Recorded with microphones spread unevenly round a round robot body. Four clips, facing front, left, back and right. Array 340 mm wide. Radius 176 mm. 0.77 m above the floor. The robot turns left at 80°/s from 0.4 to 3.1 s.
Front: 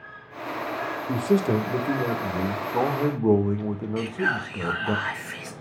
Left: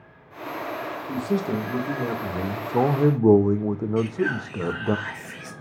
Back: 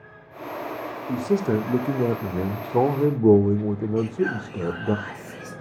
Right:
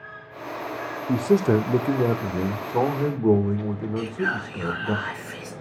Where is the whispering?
15° right, 2.0 m.